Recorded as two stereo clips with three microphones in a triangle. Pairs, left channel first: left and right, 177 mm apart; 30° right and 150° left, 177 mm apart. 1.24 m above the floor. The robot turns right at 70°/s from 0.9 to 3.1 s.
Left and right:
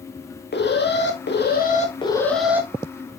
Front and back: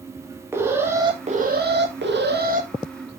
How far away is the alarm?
About 2.5 m.